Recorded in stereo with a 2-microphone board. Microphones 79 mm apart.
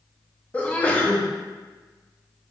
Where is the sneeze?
15° left (ahead or behind), 0.6 m.